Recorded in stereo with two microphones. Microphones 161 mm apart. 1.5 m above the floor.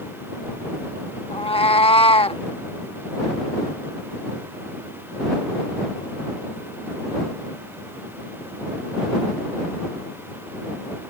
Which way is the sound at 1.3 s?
35° left (ahead or behind).